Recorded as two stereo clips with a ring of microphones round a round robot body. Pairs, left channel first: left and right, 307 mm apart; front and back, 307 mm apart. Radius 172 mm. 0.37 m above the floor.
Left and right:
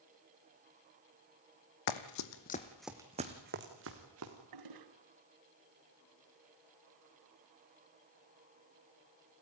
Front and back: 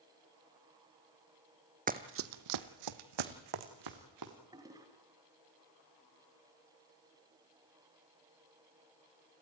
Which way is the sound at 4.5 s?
100° right.